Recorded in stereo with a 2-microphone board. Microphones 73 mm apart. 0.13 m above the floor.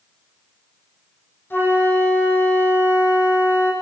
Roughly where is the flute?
Left.